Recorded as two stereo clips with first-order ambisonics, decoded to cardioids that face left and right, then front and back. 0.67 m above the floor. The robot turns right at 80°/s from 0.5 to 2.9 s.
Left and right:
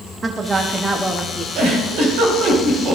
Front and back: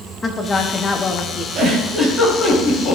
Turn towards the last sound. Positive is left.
turn(degrees=-25)